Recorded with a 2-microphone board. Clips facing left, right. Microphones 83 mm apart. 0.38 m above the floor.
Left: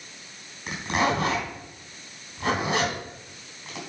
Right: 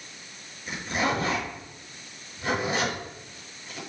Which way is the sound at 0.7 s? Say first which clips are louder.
Left 3 dB; 65° left (ahead or behind).